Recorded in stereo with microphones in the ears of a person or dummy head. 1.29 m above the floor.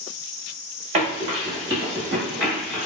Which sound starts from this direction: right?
Running footsteps, at 0.9 s.